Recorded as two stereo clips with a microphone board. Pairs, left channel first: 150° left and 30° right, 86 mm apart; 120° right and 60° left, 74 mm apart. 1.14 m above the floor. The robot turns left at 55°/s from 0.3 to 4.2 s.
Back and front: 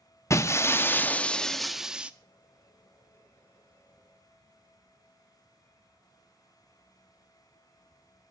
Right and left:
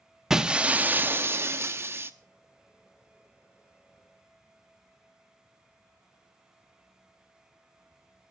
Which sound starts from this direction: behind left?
Breaking glass, at 0.3 s.